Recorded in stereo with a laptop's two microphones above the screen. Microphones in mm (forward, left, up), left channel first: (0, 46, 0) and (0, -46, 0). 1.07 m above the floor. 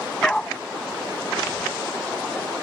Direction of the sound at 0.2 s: 10° left (ahead or behind).